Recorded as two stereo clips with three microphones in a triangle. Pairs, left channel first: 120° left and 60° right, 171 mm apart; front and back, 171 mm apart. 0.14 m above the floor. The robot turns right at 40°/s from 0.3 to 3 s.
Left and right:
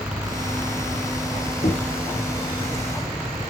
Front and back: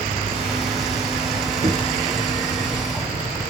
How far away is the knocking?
About 3 m.